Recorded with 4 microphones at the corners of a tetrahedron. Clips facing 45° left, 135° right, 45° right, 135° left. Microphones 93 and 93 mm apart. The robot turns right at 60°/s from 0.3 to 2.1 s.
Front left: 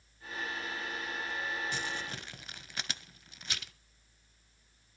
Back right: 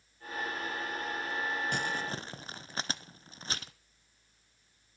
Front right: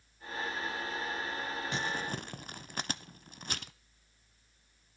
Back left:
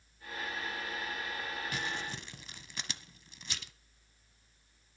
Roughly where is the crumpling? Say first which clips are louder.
Back right 4 dB, front right 3 dB; right.